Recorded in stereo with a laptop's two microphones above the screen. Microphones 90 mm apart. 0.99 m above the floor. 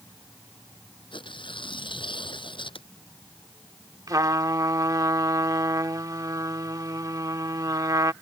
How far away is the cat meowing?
I don't hear a cat meowing.